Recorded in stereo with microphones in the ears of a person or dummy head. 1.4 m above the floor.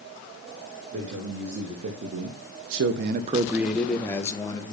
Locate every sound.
0.9 s a man speaking: 55° right (ahead or behind), 2 m; by 4.7 s 20° left (ahead or behind), 1.5 m